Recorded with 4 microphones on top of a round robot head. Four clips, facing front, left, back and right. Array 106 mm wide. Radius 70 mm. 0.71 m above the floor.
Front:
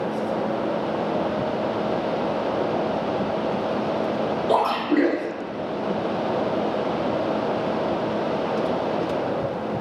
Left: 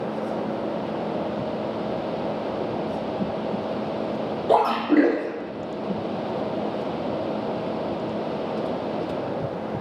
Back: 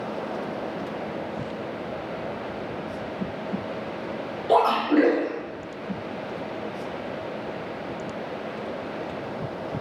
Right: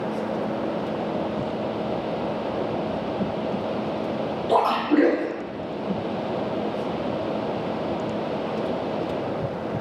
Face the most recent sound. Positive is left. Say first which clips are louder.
# left 1 dB, back 3 dB
turn(degrees=55)